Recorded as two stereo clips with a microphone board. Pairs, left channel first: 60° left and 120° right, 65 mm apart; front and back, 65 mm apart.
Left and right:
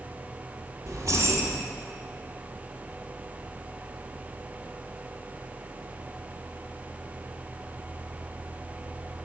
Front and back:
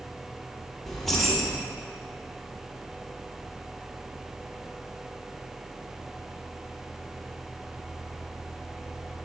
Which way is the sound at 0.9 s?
90° right.